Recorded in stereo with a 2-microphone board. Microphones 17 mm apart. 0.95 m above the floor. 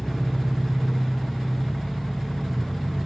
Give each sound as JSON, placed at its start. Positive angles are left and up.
{"t": 0.0, "sound": "an engine running", "side_deg": 45, "distance_m": 1.5}